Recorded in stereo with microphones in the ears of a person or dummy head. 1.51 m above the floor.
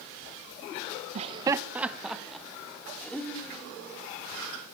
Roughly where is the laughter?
Right.